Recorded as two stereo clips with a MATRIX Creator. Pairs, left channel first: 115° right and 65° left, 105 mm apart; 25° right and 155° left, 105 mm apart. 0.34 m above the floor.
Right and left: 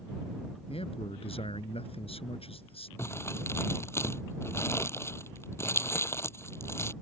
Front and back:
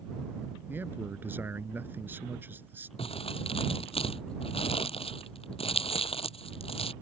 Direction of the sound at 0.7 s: 130° right.